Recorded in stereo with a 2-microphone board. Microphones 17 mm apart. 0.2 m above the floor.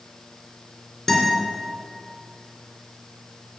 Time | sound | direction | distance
1.1 | a guitar | 15° left (ahead or behind) | 2.5 m